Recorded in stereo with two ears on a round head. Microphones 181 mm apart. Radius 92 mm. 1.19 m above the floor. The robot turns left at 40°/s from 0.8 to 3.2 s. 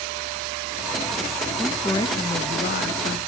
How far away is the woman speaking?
About 1.2 m.